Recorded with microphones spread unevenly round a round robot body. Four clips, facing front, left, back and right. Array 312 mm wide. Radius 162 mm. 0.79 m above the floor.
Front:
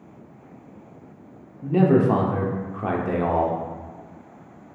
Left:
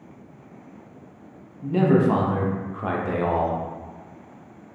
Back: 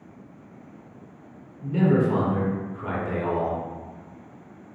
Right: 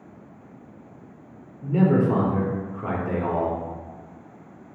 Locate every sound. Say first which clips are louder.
1.6 s a man speaking: left 1 dB, front 4 dB; 10° left, 0.8 m